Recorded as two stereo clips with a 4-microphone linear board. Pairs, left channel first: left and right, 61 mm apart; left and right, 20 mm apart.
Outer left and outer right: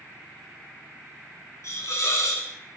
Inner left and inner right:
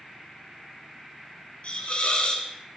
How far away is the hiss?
About 2.5 m.